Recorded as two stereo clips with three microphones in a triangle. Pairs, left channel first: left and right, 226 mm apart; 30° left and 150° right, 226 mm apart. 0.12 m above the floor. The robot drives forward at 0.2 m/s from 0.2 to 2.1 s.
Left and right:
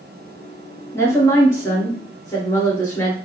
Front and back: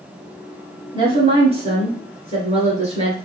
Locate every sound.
0.9 s a woman speaking: 160° left, 1.5 m; by 3.2 s 165° left, 1.7 m